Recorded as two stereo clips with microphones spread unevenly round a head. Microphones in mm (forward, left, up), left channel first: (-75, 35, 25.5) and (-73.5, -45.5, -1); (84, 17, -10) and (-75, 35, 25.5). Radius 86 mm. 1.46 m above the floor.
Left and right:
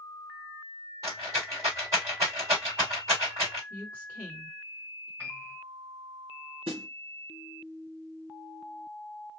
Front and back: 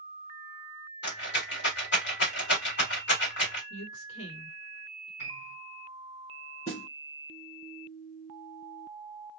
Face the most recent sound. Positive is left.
turn(degrees=-65)